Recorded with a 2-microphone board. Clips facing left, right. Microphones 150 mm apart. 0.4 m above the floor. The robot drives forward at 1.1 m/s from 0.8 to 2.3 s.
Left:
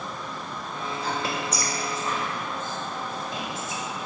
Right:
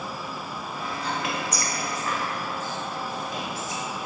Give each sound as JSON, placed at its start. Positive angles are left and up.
{"t": 1.0, "sound": "whispering", "side_deg": 35, "distance_m": 1.3}